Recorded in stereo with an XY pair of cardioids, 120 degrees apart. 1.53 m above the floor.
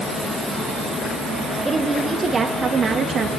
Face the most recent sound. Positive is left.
turn(degrees=-40)